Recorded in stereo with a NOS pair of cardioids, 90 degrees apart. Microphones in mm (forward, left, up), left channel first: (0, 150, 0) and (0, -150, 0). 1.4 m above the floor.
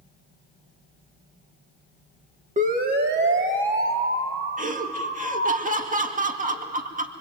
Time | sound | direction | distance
2.6 | a siren | 25° right | 2 m
4.6 | laughter | 25° right | 2.0 m